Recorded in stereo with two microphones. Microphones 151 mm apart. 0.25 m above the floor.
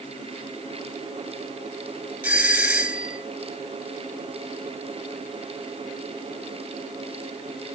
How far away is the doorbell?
About 1.8 m.